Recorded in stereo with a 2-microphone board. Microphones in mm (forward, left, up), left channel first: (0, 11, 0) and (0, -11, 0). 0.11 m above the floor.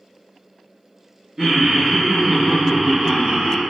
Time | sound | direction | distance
1.4 | laughter | 30° right (ahead or behind) | 1.3 m